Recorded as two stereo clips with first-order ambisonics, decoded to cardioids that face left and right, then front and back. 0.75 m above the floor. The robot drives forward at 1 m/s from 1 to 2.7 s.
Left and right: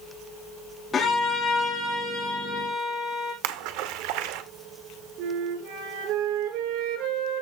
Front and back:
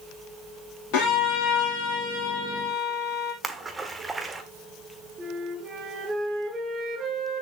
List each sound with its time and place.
0.9 s a violin: 20° left, 6 m; by 3.3 s 25° left, 4.5 m
3.4 s a splash: 100° right, 1.4 m
5.2 s a flute: 115° right, 7 m